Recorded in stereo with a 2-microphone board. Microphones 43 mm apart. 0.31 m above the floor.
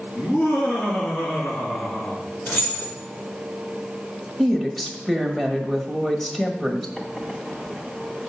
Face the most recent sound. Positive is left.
turn(degrees=15)  # may be behind; listen again after turning